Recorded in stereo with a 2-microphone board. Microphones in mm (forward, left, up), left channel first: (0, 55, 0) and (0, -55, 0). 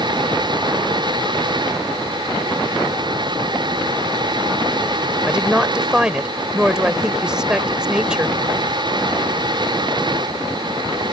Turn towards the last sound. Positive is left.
turn(degrees=-5)  # may be behind; listen again after turning